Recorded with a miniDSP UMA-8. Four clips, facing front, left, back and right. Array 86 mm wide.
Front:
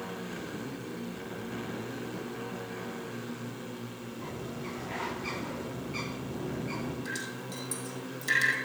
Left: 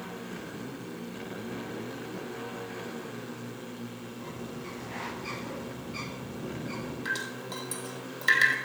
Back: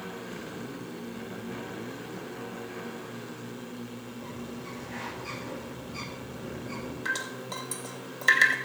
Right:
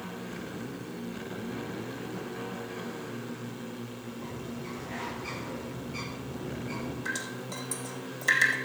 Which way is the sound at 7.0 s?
160° left.